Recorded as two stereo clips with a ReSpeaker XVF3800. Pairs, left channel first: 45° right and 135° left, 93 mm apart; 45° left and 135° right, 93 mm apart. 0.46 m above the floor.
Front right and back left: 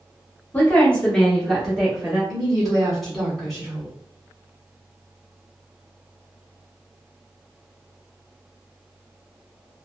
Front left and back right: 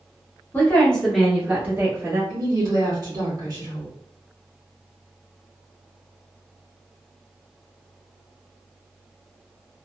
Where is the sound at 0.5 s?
5° left, 0.9 m; by 2.2 s 155° right, 1.0 m.